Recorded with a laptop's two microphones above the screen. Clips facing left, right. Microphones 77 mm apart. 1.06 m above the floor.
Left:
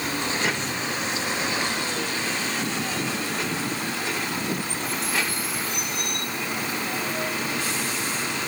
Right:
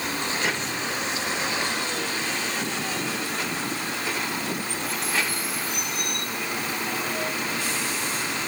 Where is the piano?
I don't hear a piano.